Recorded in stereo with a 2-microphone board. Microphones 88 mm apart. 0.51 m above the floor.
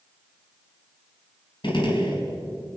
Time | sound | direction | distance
1.6 | a gunshot | 65° left (ahead or behind) | 3.5 m